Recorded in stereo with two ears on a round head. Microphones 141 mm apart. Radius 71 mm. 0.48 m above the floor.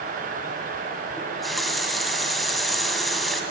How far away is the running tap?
About 2 m.